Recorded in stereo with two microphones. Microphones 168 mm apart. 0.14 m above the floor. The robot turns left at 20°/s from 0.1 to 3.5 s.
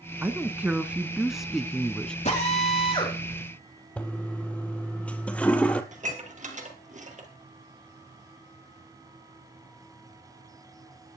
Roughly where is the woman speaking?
Behind right.